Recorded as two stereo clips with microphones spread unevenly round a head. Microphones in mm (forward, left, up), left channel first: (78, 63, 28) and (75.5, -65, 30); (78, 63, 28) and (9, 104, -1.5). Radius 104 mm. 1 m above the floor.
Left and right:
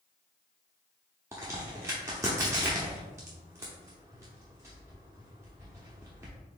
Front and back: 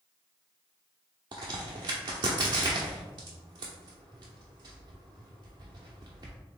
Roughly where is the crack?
Behind right.